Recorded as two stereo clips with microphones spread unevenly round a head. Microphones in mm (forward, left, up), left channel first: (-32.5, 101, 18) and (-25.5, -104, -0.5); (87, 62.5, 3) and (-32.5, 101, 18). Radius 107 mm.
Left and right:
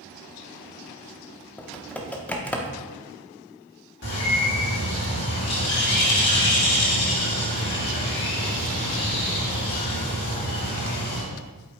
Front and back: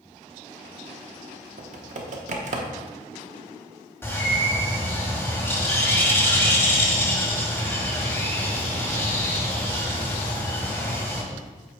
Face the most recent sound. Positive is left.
turn(degrees=50)